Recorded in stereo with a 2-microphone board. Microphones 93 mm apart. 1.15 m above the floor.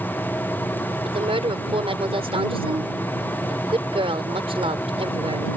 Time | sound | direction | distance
1.1 | a woman speaking | 85° right | ?